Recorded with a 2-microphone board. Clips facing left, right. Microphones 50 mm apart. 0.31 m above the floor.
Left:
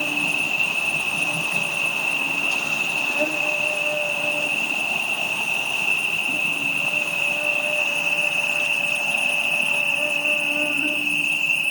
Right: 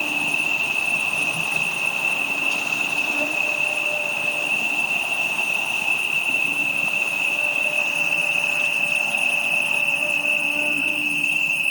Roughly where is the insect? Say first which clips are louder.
Even; left.